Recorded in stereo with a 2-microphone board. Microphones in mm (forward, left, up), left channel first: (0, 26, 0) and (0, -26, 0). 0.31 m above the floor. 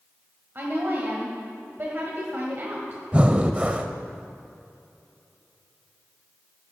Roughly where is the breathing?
Right.